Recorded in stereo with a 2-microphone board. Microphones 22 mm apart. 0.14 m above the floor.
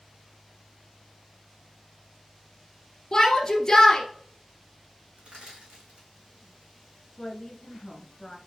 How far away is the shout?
About 2 m.